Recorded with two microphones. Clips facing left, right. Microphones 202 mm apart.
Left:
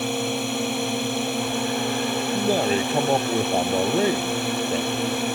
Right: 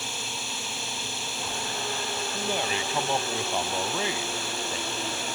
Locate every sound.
0.0 s a drone: 60° left (ahead or behind)
2.3 s a man speaking: 40° left (ahead or behind)